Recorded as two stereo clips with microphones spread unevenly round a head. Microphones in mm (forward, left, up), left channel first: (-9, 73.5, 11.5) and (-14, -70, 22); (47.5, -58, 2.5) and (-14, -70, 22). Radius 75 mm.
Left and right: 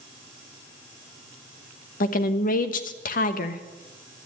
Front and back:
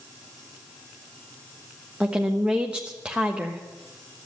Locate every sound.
2.0 s a woman speaking: 105° left, 1.1 m